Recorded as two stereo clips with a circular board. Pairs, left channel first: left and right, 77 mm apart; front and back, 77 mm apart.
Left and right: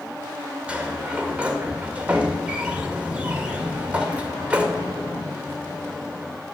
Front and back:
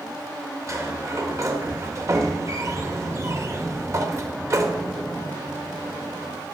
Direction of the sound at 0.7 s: 160° right.